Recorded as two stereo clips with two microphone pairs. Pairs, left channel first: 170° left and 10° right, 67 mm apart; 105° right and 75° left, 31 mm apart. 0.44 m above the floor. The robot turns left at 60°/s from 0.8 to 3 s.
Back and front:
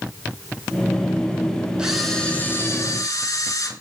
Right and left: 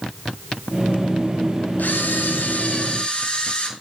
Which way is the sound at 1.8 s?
90° right.